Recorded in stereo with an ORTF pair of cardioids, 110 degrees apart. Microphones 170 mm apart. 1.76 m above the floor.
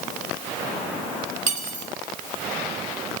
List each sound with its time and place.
1.5 s cutlery clinking: 50° right, 8.5 m